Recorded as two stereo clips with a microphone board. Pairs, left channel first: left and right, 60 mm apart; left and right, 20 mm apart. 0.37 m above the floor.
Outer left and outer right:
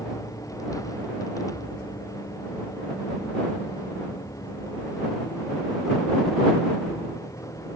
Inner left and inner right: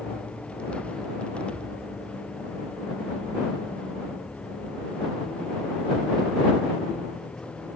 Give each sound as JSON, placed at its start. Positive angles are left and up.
{"t": 0.0, "sound": "a vehicle", "side_deg": 80}